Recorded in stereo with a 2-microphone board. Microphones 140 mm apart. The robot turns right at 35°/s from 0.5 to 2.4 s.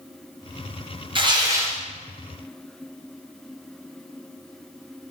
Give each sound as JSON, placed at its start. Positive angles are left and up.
{"t": 1.1, "sound": "tearing paper", "side_deg": -35, "distance_m": 1.0}